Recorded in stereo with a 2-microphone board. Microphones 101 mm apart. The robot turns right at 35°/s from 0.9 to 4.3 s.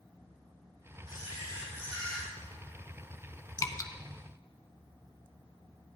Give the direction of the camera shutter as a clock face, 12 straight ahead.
8 o'clock.